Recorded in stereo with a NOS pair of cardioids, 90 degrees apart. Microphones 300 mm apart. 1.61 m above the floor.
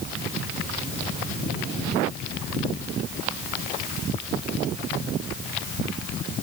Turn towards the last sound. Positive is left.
No sound to turn to.